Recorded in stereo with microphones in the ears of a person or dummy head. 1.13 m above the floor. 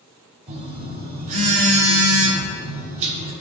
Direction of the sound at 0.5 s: 40° right (ahead or behind).